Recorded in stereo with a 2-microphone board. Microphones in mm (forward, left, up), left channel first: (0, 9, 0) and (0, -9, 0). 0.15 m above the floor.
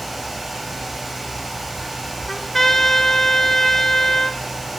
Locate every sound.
2.3 s a trumpet: 25° left (ahead or behind), 0.7 m